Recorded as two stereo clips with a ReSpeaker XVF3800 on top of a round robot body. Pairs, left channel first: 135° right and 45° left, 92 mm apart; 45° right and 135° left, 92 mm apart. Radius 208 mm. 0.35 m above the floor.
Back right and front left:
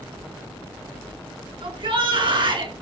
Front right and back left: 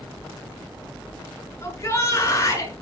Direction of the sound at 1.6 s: 15° left.